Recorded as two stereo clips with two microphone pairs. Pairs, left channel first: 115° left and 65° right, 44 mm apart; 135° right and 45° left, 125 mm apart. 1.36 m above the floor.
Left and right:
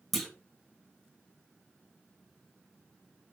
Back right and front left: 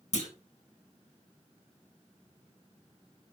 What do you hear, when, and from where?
0.1 s a clunk: 155° right, 1.7 m